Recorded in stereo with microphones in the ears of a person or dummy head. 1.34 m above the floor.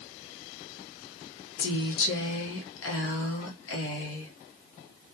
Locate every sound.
1.6 s a woman speaking: 75° left (ahead or behind), 1.1 m